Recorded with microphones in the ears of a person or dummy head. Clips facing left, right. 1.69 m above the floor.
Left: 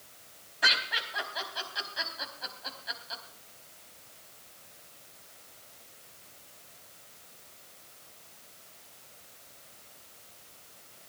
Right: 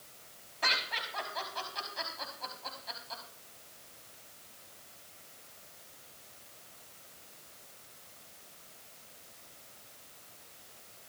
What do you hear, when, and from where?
0.6 s laughter: 15° left (ahead or behind), 4.5 m